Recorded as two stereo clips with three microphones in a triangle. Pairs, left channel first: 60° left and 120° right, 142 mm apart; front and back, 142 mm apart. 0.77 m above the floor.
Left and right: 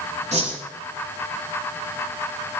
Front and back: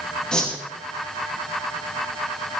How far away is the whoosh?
About 5.5 m.